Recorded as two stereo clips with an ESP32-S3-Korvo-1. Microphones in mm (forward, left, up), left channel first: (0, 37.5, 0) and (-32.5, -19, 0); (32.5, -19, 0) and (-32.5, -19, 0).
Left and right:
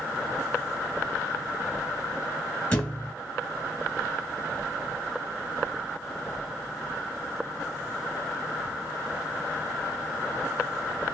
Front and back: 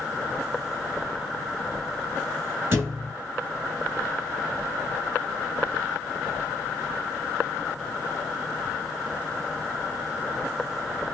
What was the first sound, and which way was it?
A thud, 125° left.